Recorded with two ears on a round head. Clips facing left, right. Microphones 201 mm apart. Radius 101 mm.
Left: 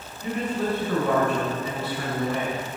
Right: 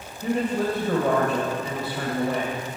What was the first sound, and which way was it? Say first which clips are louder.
A woman speaking: right 3 dB; 45° right (ahead or behind).